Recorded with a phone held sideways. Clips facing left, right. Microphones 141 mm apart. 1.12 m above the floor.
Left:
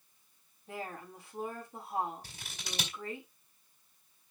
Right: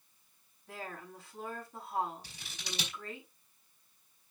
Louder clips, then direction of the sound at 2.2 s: Even; 50° left (ahead or behind).